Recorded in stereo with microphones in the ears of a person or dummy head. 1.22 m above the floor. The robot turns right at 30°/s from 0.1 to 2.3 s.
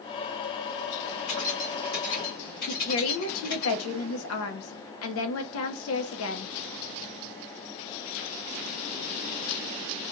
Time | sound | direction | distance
1.3 | keys jangling | 85° left | 1.9 m
2.7 | a woman speaking | 70° left (ahead or behind) | 0.6 m